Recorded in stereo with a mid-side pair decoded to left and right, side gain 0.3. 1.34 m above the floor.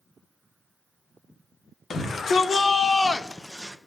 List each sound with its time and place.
1.9 s a shout: 70° left, 2 m; by 3.8 s 20° right, 0.9 m